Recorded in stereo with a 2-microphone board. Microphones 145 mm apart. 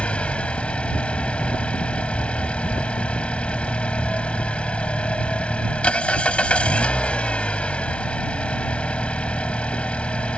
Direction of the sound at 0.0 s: 10° left (ahead or behind).